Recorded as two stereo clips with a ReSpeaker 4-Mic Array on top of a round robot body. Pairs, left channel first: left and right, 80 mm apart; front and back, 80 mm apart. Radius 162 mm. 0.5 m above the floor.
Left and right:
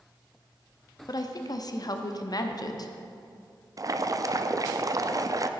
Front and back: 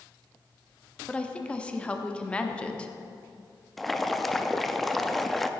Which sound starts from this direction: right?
Boiling, at 3.8 s.